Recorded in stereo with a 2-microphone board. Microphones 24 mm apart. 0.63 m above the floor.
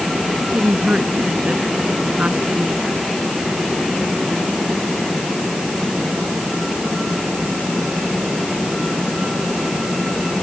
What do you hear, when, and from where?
0.4 s a woman speaking: 60° right (ahead or behind)